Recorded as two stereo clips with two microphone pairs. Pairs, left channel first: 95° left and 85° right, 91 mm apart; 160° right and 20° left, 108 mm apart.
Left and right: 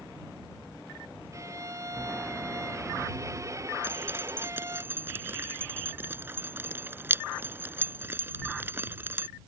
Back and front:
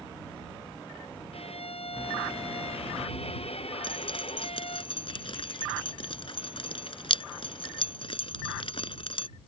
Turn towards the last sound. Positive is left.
turn(degrees=-145)